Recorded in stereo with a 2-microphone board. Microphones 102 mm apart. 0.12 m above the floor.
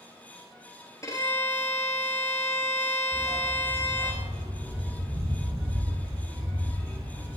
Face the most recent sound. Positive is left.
turn(degrees=-75)  # may be behind; listen again after turning